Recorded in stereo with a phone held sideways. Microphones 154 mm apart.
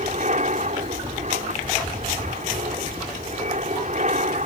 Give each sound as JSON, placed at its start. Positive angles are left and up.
{"t": 0.0, "sound": "an aircraft", "side_deg": -50}